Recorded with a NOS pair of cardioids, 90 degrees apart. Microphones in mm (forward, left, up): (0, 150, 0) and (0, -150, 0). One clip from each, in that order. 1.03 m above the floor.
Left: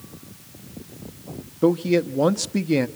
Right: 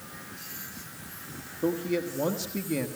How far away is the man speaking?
About 1.5 m.